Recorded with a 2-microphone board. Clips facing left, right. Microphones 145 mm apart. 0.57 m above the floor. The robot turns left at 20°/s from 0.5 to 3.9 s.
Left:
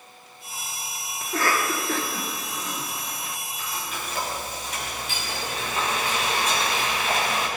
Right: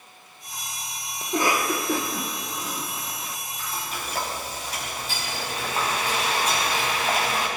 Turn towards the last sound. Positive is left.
turn(degrees=-35)  # may be behind; listen again after turning